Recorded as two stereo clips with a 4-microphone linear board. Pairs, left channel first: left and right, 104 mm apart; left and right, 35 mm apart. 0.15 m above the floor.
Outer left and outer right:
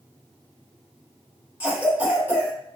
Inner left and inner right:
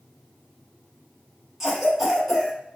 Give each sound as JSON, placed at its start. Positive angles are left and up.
{"t": 1.6, "sound": "a cough", "side_deg": -15, "distance_m": 1.0}